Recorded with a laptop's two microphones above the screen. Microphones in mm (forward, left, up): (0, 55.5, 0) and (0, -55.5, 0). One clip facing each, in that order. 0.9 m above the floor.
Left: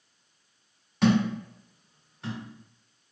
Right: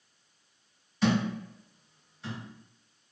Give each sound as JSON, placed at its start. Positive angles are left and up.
{"t": 1.0, "sound": "a thud", "side_deg": 70, "distance_m": 1.8}